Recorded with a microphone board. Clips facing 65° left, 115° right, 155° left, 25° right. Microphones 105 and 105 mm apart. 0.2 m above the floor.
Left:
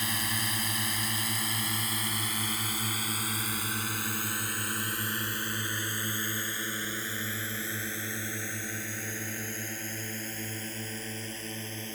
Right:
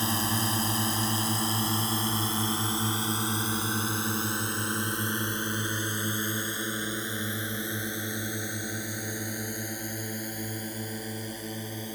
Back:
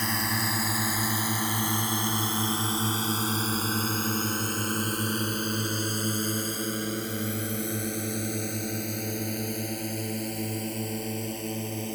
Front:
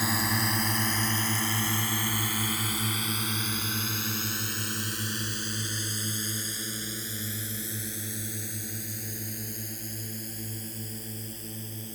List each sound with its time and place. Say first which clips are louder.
0.0 s a drone: right 6 dB, front 1 dB; 105° right; by 12.0 s 170° left